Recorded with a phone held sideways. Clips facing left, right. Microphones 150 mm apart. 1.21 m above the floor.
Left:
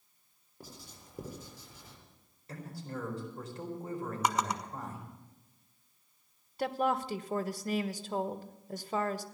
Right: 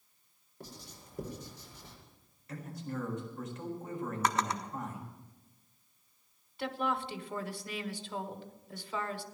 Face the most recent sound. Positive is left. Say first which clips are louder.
# left 4 dB
turn(degrees=40)  # may be behind; listen again after turning